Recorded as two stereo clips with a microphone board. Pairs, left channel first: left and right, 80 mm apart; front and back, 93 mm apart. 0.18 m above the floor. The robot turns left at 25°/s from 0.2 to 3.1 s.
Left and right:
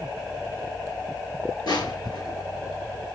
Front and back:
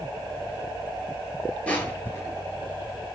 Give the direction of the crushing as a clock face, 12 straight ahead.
10 o'clock.